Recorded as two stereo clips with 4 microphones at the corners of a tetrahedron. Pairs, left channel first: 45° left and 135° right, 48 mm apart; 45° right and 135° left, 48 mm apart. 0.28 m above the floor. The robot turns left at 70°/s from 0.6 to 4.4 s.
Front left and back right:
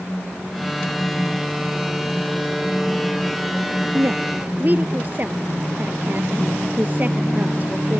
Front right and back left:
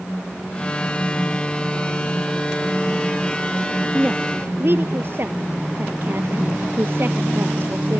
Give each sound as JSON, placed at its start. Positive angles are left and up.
{"t": 3.9, "sound": "a woman speaking", "azimuth_deg": -155}